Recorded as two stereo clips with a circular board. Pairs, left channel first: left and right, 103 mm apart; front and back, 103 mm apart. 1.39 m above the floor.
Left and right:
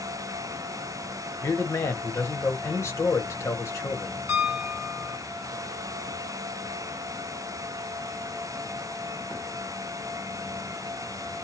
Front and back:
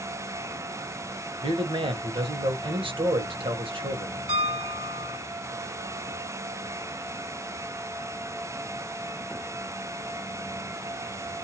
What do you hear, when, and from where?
1.4 s a man speaking: 150° left, 1.0 m
4.3 s a piano: 165° right, 1.3 m